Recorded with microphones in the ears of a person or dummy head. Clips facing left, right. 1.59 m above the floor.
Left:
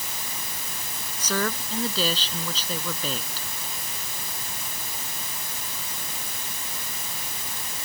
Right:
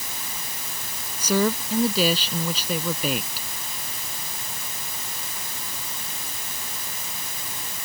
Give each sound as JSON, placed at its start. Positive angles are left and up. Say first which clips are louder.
{"t": 1.2, "sound": "a woman speaking", "louder": "right 6 dB", "side_deg": -15}